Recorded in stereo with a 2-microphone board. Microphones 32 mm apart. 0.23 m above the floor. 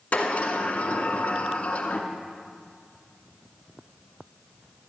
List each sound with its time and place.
0.1 s a sliding door: 50° left (ahead or behind), 1.5 m